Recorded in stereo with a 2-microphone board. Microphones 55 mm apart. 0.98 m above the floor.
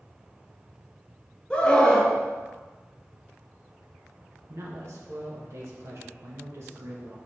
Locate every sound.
1.5 s a scream: 20° left (ahead or behind), 0.7 m
4.5 s a man speaking: 50° right (ahead or behind), 0.9 m